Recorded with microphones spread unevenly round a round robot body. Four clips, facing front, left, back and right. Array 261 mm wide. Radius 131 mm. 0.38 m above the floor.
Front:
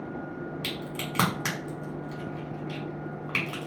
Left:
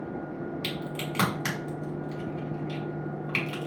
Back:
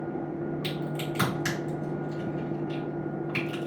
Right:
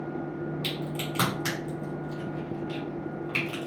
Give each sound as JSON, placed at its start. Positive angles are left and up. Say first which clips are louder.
{"t": 0.6, "sound": "a crack", "louder": "right 1 dB, back 4 dB", "azimuth_deg": 5, "distance_m": 1.9}